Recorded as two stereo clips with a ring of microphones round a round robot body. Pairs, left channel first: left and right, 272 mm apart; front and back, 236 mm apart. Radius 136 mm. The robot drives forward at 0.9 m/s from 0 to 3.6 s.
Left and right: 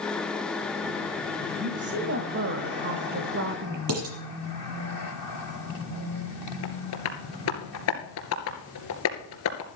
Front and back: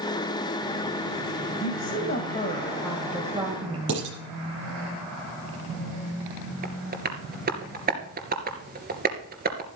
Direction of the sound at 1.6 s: 35° right.